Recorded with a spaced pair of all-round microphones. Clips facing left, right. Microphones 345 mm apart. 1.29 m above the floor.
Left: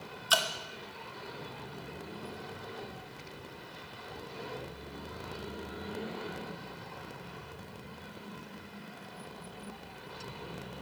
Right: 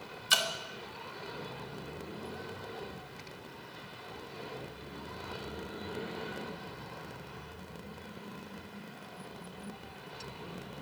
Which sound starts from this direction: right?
Dripping, at 0.3 s.